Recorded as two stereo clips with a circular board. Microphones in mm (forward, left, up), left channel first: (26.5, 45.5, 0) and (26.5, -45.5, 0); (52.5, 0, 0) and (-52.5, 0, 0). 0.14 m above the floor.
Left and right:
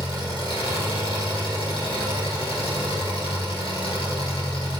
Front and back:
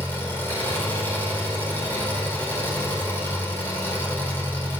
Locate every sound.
0.0 s an engine running: 70° left, 4.5 m